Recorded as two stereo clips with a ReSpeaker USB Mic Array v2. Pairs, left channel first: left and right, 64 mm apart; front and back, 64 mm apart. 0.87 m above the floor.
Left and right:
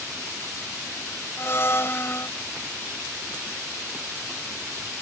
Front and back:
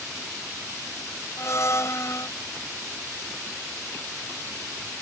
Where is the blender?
40° left.